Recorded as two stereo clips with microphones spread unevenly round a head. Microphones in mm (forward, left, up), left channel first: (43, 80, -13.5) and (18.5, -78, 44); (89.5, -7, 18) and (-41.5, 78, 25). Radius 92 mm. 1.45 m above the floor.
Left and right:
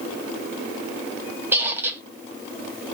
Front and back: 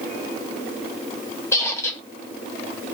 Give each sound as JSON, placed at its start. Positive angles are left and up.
{"t": 1.5, "sound": "a squeak", "azimuth_deg": -100, "distance_m": 0.9}